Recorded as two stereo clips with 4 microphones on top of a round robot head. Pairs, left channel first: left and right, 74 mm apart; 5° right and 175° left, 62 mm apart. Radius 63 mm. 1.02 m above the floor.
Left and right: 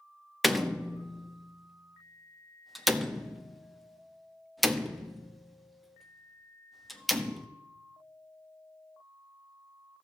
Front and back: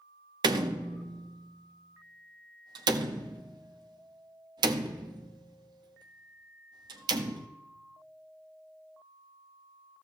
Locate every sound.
0.4 s a door slam: straight behind, 0.7 m